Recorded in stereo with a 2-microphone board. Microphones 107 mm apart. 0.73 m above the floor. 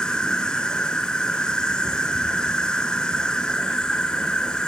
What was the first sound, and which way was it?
An insect, 10° left (ahead or behind).